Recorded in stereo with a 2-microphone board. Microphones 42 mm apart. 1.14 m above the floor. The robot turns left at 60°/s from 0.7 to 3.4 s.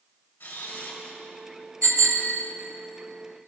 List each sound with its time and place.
0.4 s a camera shutter: 70° left (ahead or behind), 4.5 m; by 1.2 s 40° left (ahead or behind), 4.5 m
1.8 s a bicycle bell: 25° left, 4.5 m; by 2.4 s 10° right, 4.5 m